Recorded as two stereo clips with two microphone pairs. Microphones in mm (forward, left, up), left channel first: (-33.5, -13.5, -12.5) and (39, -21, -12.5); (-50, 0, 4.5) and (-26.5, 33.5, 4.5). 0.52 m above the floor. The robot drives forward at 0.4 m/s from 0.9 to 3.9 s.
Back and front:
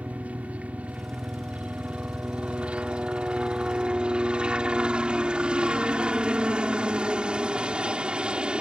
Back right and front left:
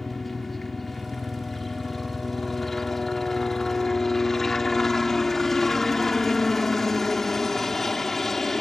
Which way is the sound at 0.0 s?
45° right.